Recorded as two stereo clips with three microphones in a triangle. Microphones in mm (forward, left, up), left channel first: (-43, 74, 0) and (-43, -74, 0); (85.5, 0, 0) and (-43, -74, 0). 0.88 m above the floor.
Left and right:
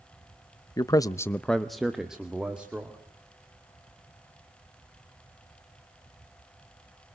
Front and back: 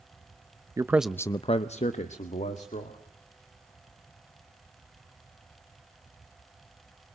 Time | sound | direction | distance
0.8 | a man speaking | 150° left | 0.7 m